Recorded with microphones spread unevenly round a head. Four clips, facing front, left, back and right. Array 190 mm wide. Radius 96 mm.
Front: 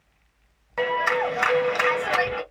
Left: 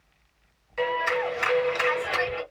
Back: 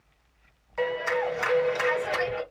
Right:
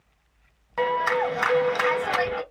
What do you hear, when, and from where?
0.8 s a clap: 45° right, 1.4 m